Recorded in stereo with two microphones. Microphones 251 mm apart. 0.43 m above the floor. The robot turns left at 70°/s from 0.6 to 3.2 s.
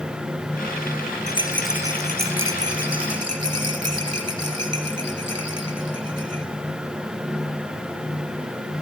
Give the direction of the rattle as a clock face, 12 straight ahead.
11 o'clock.